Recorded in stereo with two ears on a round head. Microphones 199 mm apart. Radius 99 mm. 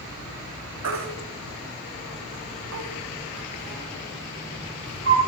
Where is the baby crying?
65° right (ahead or behind), 1.2 m.